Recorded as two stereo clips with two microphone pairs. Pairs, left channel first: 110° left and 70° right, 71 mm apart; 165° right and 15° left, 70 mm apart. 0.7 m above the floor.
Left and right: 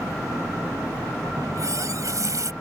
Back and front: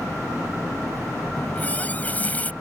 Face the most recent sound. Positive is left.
turn(degrees=-100)